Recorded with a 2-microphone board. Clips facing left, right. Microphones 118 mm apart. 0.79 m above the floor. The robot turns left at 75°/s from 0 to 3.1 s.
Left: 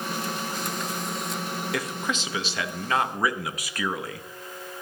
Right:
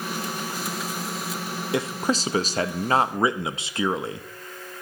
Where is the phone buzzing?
No phone buzzing in this recording.